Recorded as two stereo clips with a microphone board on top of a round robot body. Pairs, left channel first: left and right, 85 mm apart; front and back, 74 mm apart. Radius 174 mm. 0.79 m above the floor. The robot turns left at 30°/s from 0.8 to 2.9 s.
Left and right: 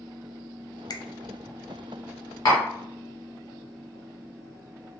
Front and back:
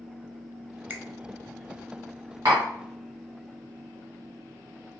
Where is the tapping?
140° left, 1.1 m; by 2.7 s 135° left, 1.1 m.